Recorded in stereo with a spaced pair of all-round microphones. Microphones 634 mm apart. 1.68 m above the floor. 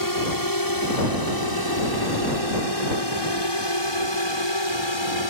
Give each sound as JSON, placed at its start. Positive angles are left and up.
{"t": 0.0, "sound": "a drone", "side_deg": 30}